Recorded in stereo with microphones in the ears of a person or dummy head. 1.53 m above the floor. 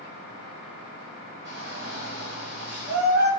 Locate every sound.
1.4 s a shout: 60° right (ahead or behind), 3 m